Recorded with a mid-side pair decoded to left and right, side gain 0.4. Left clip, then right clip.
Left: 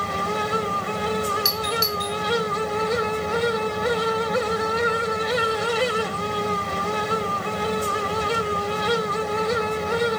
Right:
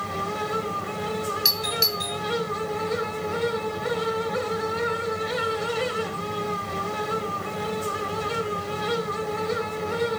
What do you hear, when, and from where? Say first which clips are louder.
0.0 s a fan: left 4 dB; 40° left, 1.1 m
1.4 s a doorbell: even; 10° right, 3.5 m